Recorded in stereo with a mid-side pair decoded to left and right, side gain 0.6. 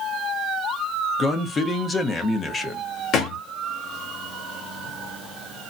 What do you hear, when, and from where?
1.2 s a man speaking: 25° left, 0.8 m
3.1 s a thud: 50° left, 1.5 m